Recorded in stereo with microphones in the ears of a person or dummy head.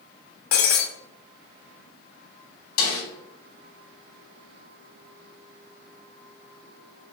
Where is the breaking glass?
45° left (ahead or behind), 0.9 m.